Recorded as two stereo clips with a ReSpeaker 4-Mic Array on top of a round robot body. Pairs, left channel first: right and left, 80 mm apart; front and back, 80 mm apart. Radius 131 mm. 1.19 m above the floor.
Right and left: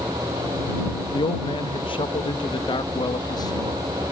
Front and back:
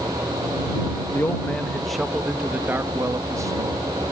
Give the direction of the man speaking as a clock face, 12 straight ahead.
2 o'clock.